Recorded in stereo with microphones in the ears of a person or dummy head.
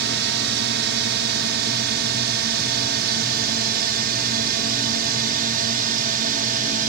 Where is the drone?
55° right (ahead or behind); by 6.9 s 40° right (ahead or behind).